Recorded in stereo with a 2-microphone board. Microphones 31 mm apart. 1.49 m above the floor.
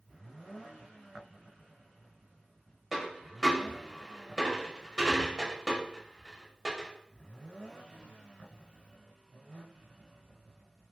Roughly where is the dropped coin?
Centre.